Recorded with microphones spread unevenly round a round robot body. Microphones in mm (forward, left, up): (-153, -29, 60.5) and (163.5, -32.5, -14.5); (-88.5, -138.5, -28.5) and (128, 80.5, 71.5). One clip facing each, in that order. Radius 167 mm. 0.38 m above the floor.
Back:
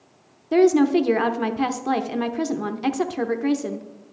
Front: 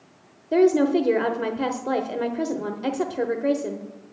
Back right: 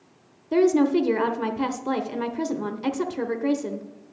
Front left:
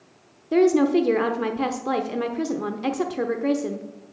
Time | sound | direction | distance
0.5 | a woman speaking | 115° right | 0.8 m